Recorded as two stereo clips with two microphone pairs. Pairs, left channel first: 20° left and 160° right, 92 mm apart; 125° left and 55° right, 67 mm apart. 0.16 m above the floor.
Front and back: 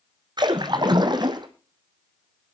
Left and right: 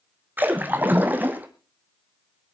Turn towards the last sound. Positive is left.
turn(degrees=-120)